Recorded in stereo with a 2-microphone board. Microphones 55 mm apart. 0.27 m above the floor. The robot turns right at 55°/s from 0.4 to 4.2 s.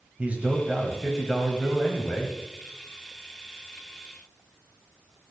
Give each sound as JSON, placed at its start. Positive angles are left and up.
{"t": 0.2, "sound": "a man speaking", "azimuth_deg": -50, "distance_m": 1.1}